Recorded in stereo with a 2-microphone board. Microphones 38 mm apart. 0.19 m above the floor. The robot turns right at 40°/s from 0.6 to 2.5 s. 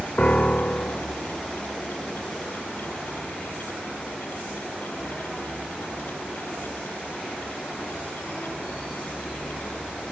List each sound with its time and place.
0.2 s a piano: 30° left (ahead or behind); by 1.1 s 55° left (ahead or behind)